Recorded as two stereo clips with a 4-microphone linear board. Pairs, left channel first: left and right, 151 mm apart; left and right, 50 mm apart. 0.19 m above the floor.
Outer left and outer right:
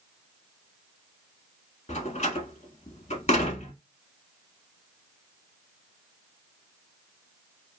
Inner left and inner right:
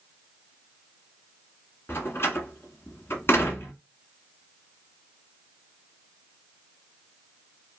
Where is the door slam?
50° left (ahead or behind), 1.1 m.